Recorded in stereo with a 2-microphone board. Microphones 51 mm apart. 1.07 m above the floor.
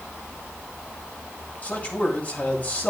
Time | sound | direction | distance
1.6 | a man speaking | 35° left (ahead or behind) | 7.5 m